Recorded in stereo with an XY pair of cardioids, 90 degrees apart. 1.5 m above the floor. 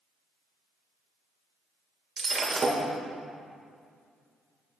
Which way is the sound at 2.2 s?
40° right.